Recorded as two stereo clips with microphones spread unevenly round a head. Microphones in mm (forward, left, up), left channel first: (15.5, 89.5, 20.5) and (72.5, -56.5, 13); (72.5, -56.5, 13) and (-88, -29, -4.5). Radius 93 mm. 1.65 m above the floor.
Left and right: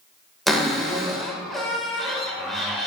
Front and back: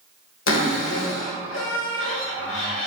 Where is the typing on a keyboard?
No typing on a keyboard in this recording.